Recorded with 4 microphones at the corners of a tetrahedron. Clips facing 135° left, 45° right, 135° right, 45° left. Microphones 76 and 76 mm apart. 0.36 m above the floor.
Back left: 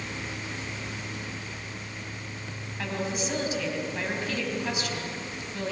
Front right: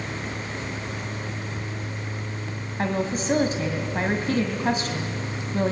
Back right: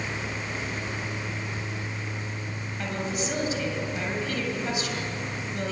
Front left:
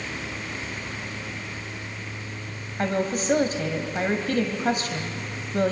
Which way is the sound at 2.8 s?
5° left.